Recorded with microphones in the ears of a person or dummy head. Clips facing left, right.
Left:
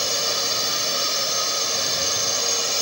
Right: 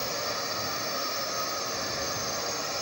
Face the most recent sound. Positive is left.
turn(degrees=50)  # may be behind; listen again after turning